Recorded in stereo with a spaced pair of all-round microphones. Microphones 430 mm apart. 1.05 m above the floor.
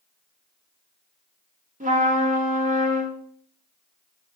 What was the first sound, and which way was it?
A trumpet, 15° right (ahead or behind).